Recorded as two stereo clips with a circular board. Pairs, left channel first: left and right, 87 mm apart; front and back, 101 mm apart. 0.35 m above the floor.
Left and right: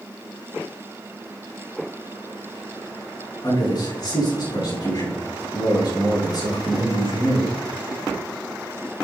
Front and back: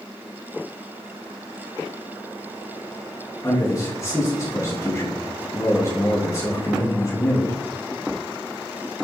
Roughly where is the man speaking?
Ahead left.